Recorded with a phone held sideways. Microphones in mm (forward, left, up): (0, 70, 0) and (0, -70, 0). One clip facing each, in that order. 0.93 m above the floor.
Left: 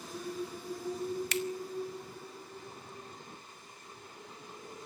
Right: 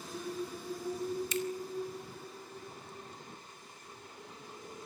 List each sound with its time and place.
1.3 s a finger snap: 75° left (ahead or behind), 1.8 m